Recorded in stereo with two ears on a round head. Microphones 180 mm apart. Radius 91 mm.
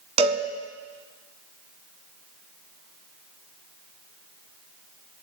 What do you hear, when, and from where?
0.2 s a cowbell: 30° right (ahead or behind), 1.5 m